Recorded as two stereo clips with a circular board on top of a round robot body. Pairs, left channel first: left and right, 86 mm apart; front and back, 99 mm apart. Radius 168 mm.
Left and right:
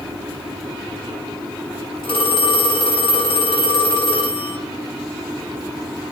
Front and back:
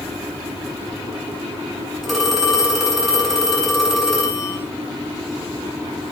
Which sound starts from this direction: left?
A phone ringing, at 2.0 s.